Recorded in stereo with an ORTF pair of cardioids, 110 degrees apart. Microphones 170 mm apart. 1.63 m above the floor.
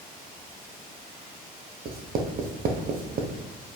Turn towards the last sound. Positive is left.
turn(degrees=-60)